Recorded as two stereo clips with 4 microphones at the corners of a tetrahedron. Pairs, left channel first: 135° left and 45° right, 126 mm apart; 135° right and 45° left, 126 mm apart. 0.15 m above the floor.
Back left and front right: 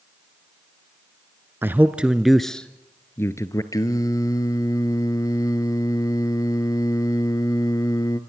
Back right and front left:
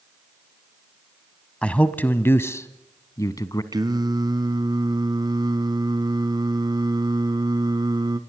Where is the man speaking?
70° right, 1.0 m; by 3.6 s straight behind, 1.3 m.